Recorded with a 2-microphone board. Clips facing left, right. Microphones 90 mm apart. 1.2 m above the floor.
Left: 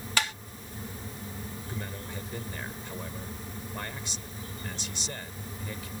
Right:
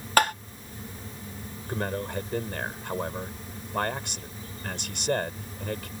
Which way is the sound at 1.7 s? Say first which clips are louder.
Right 12 dB; 70° right (ahead or behind).